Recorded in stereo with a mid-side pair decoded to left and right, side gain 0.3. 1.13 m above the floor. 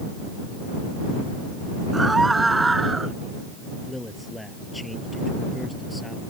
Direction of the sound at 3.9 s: 15° left.